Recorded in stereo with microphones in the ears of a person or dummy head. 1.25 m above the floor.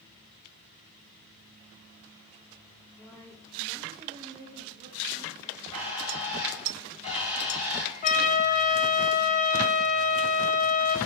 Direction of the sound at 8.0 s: 40° left (ahead or behind).